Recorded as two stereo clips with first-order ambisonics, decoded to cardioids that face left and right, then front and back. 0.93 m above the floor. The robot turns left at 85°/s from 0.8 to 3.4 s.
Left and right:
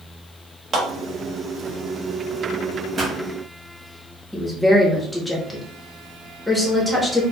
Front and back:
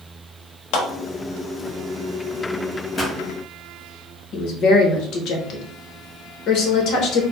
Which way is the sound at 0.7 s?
25° right.